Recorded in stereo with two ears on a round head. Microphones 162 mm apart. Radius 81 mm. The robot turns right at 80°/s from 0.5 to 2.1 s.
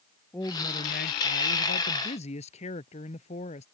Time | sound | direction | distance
0.3 | a woman speaking | 15° left | ?